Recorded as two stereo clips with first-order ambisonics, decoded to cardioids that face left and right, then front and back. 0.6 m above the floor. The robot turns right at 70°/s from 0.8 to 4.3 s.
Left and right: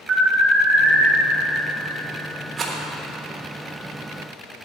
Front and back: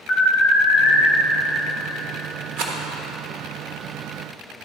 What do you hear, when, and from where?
0.1 s an alarm: straight ahead, 1.8 m; by 1.1 s 20° left, 1.8 m
2.6 s a rattle: 160° right, 1.2 m; by 2.8 s 145° right, 1.2 m